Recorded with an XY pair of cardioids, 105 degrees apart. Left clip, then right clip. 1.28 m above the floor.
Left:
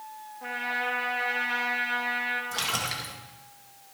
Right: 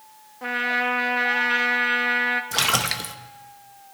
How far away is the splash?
About 1.1 m.